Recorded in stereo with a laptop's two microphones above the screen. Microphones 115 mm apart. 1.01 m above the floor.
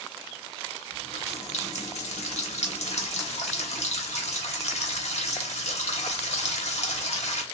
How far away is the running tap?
About 1.0 m.